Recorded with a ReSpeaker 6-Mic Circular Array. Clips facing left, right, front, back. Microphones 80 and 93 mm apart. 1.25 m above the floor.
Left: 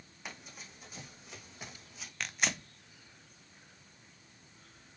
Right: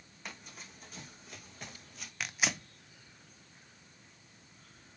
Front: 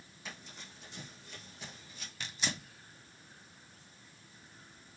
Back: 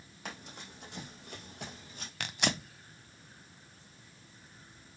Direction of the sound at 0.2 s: 175° left.